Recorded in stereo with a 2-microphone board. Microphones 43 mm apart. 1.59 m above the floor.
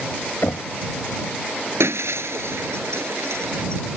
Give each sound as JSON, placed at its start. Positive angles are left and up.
{"t": 0.4, "sound": "knocking", "side_deg": 65}
{"t": 1.8, "sound": "breaking glass", "side_deg": -75}